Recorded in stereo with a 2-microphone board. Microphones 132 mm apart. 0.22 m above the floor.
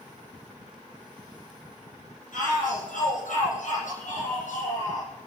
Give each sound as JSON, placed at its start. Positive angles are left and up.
{"t": 2.3, "sound": "a shout", "side_deg": 80, "distance_m": 8.0}